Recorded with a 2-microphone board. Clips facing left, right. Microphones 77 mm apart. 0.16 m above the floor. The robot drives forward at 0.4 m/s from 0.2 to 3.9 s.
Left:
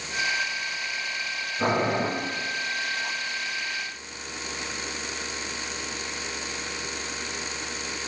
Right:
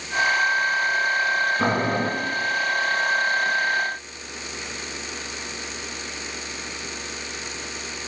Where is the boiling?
35° right (ahead or behind), 2 m.